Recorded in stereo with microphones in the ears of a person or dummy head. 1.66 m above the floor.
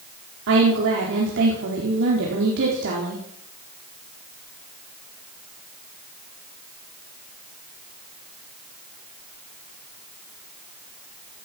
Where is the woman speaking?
65° right (ahead or behind), 4.5 m.